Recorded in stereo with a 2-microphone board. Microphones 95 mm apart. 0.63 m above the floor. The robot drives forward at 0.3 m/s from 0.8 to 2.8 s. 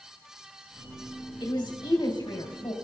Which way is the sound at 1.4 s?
50° left (ahead or behind).